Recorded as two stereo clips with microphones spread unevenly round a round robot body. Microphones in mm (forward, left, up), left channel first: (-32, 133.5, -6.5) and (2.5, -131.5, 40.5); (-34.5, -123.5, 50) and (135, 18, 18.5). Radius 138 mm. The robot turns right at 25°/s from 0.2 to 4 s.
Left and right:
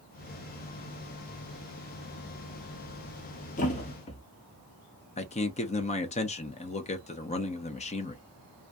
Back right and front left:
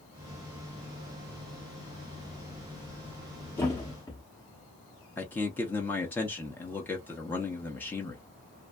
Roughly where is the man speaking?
Behind left.